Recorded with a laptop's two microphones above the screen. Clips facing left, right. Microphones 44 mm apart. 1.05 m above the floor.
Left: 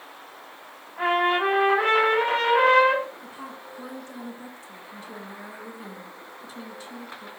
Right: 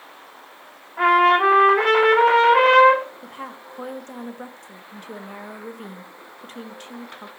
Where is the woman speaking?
55° right (ahead or behind), 0.9 m.